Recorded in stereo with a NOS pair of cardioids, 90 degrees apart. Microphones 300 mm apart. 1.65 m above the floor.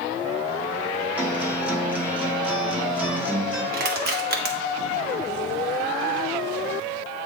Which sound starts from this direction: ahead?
A guitar, at 1.2 s.